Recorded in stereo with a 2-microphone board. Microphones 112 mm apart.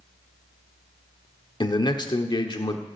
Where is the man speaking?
40° left (ahead or behind), 1.1 m.